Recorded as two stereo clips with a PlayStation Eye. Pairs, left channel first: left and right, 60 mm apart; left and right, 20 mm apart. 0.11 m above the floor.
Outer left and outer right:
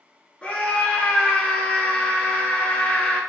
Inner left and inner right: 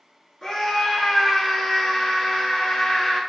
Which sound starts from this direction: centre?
A scream, at 0.4 s.